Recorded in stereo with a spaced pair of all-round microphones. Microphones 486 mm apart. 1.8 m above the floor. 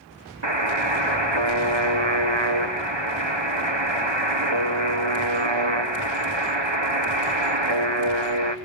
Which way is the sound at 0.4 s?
70° right (ahead or behind).